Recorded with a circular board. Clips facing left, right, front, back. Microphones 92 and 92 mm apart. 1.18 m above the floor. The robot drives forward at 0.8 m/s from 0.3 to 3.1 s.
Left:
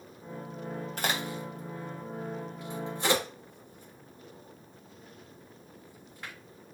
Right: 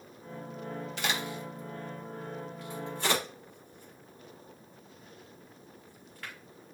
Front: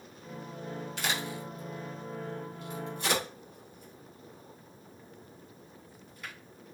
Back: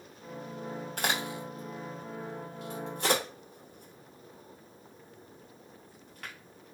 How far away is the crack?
About 1.3 m.